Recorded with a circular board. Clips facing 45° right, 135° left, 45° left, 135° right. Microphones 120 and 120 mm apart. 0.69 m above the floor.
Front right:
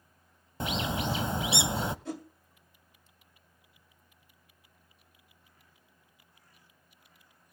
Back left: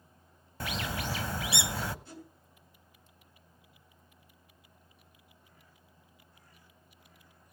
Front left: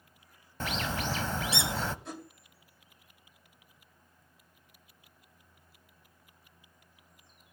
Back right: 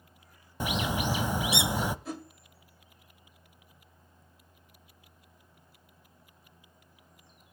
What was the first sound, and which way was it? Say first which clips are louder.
A bird: front right 4 dB, back right 3 dB; 80° right.